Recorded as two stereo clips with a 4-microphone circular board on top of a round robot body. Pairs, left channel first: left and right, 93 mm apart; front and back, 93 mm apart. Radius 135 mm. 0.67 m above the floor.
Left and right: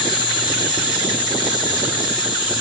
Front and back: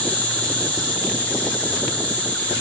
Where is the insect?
75° left, 2.5 m.